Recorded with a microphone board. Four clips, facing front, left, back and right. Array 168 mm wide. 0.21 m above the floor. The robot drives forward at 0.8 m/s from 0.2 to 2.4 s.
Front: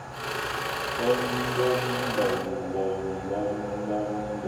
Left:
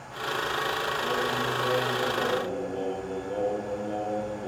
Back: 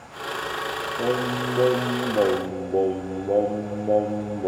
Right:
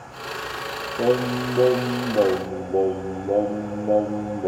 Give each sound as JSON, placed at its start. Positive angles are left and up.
{"t": 1.0, "sound": "singing", "azimuth_deg": -95, "distance_m": 1.6}